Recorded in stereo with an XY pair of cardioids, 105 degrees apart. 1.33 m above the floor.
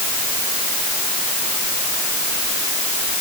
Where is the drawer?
I don't hear a drawer.